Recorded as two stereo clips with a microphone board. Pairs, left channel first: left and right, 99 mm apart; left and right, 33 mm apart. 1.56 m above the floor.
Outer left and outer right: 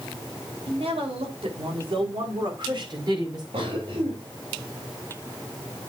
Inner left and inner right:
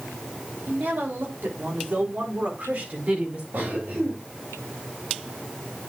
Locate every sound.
0.7 s a woman speaking: 80° right, 3.5 m; by 3.4 s 45° right (ahead or behind), 5.5 m
3.5 s a cough: 85° right, 3.5 m